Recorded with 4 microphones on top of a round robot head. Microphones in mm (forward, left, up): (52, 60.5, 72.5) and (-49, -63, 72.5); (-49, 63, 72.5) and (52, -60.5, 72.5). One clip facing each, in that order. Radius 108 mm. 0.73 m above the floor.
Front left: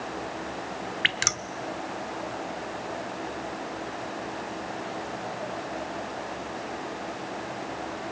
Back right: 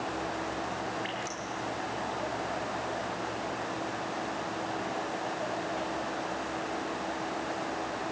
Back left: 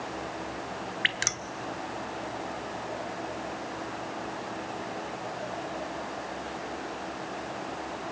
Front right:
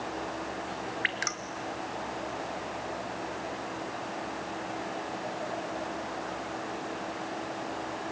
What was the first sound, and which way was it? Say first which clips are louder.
Dripping: front left 1 dB, even; 65° left.